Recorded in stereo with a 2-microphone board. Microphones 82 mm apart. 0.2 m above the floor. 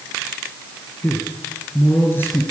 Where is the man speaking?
25° left (ahead or behind), 4 m.